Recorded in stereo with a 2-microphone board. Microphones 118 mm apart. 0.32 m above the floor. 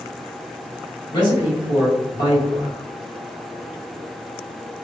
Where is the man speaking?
40° left (ahead or behind), 1.9 m.